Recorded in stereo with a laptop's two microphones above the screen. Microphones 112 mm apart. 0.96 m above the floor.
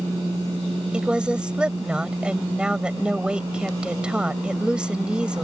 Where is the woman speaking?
10° right (ahead or behind).